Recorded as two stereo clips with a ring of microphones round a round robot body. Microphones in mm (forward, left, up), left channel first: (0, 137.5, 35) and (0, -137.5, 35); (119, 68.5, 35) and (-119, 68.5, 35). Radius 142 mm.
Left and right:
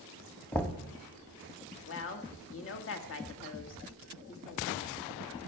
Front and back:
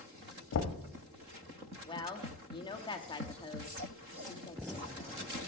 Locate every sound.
0.5 s knocking: 5° left, 1.1 m
1.9 s a woman speaking: 65° left, 1.7 m